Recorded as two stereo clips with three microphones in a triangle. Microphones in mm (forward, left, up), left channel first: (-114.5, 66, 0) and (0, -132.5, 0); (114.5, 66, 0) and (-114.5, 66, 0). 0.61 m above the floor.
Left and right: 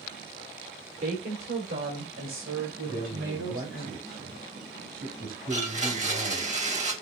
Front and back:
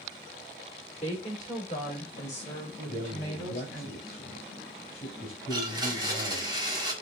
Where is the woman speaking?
55° right, 2 m; by 3.9 s 60° right, 4.5 m.